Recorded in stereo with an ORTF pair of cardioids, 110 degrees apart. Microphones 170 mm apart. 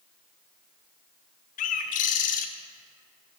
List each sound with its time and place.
1.6 s a bird: 55° left, 0.6 m